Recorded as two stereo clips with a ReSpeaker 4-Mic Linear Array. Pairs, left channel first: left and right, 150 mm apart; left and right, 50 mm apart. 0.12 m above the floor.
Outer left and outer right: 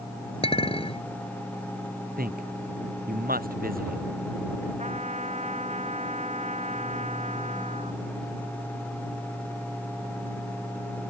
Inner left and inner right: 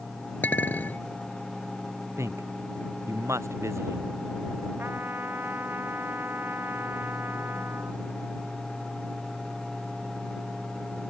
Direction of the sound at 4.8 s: 50° right (ahead or behind).